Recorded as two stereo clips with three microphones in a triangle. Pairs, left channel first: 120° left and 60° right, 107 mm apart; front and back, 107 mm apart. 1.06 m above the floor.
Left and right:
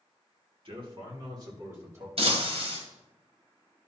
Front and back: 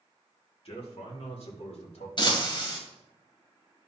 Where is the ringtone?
I don't hear a ringtone.